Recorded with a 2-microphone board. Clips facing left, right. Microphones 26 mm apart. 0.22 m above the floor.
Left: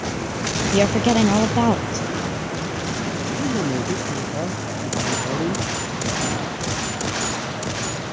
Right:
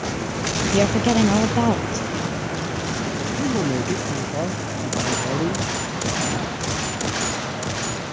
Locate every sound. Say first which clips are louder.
0.7 s a woman speaking: left 1 dB; 10° left (ahead or behind)
3.4 s a man speaking: right 1 dB; 15° right (ahead or behind)